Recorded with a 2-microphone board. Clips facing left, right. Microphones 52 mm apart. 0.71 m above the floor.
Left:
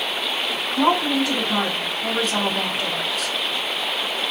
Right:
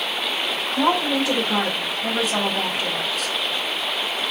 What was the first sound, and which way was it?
A woman speaking, 5° right (ahead or behind).